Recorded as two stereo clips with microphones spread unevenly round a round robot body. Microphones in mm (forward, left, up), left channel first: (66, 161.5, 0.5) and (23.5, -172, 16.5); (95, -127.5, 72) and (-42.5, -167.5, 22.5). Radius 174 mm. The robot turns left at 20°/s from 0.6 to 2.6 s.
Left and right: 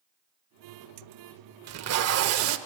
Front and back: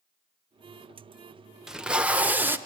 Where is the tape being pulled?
105° right, 0.8 m; by 2.6 s 125° right, 0.8 m.